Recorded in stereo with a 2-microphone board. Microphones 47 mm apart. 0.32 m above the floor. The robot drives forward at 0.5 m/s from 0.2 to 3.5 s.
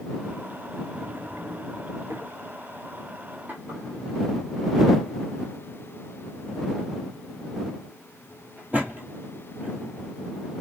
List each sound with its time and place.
0.9 s a drawer: 75° right (ahead or behind), 0.9 m; by 9.9 s 30° right (ahead or behind), 1.8 m